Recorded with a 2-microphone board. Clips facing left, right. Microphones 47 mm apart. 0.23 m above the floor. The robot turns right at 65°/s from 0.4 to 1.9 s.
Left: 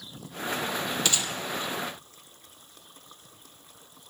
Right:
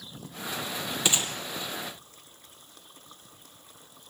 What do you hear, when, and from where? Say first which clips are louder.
1.1 s a gunshot: even; 15° right (ahead or behind), 2 m; by 1.3 s 35° right (ahead or behind), 2 m